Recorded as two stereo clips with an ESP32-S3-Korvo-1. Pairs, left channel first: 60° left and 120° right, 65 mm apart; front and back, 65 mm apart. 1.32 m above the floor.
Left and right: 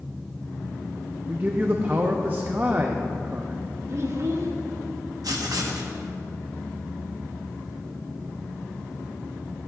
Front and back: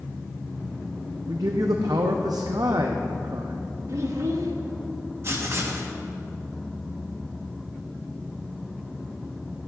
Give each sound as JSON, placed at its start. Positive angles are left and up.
{"t": 1.3, "sound": "a man speaking", "azimuth_deg": 180, "distance_m": 0.5}
{"t": 3.9, "sound": "a child speaking", "azimuth_deg": -150, "distance_m": 1.1}
{"t": 5.2, "sound": "writing", "azimuth_deg": -135, "distance_m": 1.0}